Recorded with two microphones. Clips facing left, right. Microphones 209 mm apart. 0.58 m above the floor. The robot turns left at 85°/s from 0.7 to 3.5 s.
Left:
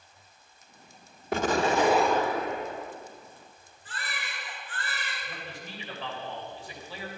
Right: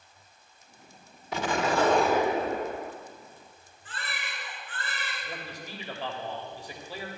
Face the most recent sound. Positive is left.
turn(degrees=-40)  # may be behind; listen again after turning